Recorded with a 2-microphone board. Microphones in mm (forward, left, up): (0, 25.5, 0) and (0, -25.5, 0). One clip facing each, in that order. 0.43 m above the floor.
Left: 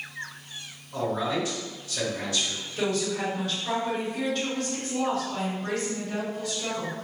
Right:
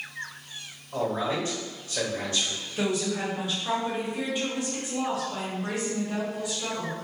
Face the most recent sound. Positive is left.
turn(degrees=-15)  # may be behind; listen again after turning